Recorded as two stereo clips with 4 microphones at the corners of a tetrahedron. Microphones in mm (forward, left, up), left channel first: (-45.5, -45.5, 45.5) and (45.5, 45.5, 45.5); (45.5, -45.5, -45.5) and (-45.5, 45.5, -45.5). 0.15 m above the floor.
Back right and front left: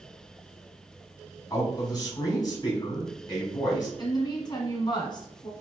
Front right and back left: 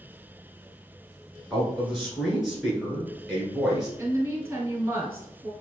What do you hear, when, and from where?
1.5 s a man speaking: 140° right, 1.6 m
4.0 s a woman speaking: 165° right, 1.7 m